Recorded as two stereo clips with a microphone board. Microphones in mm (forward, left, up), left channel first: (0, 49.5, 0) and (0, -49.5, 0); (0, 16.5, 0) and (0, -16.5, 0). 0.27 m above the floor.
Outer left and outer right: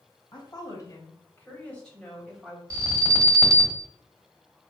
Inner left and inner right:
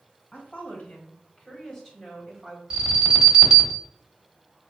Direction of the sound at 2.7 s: 30° right (ahead or behind).